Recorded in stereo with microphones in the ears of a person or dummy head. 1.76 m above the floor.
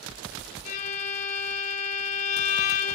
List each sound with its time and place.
0.7 s a violin: 40° left (ahead or behind), 1.7 m